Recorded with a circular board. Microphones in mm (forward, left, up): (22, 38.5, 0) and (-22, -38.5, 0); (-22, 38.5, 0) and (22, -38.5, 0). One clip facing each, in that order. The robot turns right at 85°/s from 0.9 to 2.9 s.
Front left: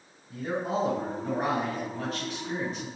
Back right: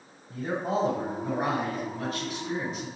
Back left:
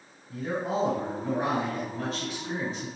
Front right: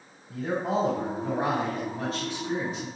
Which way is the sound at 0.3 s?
80° right.